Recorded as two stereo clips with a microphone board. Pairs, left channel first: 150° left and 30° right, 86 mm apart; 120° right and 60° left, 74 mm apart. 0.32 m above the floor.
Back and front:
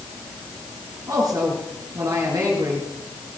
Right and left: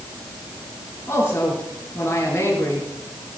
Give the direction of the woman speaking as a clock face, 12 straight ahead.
2 o'clock.